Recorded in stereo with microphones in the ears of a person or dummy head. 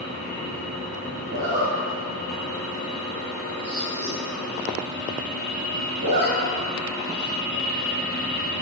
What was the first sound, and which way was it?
A zipper, 50° right (ahead or behind).